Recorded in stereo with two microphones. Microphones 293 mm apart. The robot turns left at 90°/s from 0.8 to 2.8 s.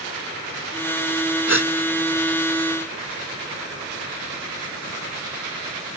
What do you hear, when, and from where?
1.5 s a gasp: 60° left (ahead or behind)